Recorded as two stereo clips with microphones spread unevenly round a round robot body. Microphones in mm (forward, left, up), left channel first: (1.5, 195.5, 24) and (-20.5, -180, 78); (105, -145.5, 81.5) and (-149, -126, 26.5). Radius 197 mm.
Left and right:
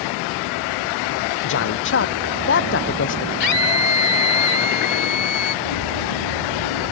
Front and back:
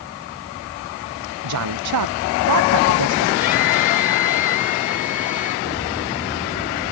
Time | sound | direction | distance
1.4 | a man speaking | 145° left | ?
3.4 | a scream | 90° left | ?
5.7 | a bird | 65° left | ?